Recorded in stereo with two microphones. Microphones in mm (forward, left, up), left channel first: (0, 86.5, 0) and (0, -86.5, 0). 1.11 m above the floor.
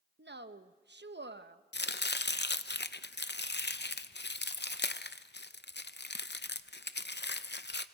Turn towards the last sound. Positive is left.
turn(degrees=80)